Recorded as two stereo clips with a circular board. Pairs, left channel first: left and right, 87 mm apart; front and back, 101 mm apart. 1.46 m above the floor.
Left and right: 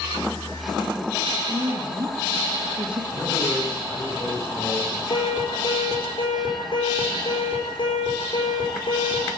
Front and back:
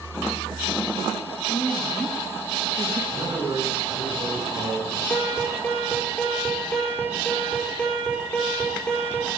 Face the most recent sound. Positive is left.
turn(degrees=80)